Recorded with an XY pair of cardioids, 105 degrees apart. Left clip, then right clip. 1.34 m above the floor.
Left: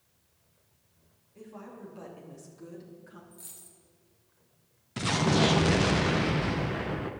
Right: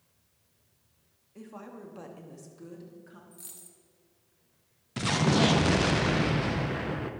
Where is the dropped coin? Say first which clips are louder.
Even; 15° right, 1.9 m.